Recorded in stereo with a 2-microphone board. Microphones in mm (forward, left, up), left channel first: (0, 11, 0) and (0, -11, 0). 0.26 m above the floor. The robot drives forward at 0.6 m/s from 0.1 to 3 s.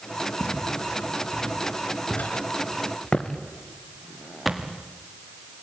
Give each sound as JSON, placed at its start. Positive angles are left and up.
{"t": 0.4, "sound": "footsteps", "side_deg": 80, "distance_m": 4.5}